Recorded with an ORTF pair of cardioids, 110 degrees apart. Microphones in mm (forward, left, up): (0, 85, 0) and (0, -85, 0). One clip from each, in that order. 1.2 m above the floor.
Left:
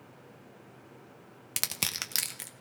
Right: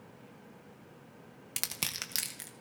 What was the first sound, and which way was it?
Crushing, 15° left.